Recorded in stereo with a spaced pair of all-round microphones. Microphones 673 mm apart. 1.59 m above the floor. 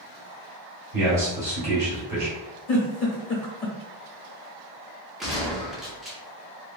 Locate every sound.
0.9 s a man speaking: 80° right, 1.8 m
2.7 s a giggle: 70° left (ahead or behind), 1.0 m
5.2 s a gunshot: centre (ahead or behind), 0.8 m